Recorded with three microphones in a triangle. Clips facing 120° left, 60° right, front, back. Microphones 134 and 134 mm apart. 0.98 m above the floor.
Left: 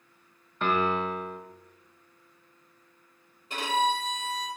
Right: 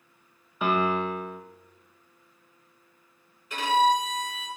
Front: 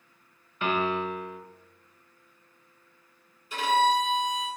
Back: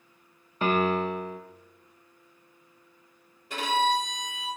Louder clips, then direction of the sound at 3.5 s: Right 5 dB, front 2 dB; straight behind.